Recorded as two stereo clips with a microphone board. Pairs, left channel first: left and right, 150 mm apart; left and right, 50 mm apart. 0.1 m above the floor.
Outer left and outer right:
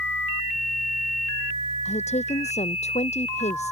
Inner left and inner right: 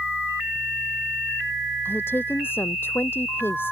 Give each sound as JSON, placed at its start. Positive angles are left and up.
{"t": 1.9, "sound": "a woman speaking", "side_deg": 50}